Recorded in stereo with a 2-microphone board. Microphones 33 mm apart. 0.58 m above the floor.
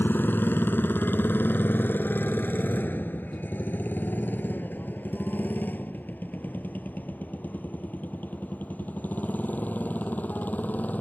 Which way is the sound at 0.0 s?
90° left.